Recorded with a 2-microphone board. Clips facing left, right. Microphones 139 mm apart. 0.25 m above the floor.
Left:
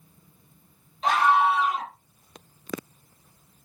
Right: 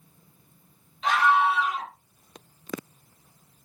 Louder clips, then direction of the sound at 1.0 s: Left 1 dB; 40° left (ahead or behind).